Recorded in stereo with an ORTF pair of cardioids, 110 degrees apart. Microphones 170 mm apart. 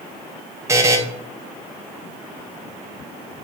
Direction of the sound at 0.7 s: 15° right.